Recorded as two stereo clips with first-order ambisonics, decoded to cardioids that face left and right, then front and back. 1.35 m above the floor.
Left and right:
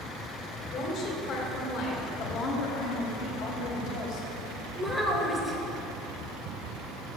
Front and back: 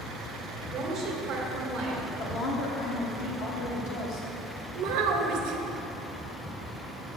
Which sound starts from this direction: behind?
A child speaking, at 4.8 s.